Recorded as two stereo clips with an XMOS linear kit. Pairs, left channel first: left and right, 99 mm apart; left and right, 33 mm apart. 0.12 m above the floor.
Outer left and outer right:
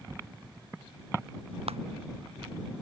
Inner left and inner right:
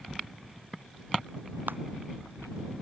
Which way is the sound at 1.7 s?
85° right.